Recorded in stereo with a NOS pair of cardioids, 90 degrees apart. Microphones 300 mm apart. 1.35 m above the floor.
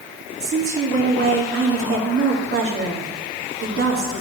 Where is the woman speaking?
45° right, 2.5 m.